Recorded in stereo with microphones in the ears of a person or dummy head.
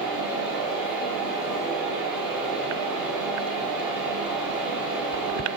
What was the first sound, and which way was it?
A fan, 15° right (ahead or behind).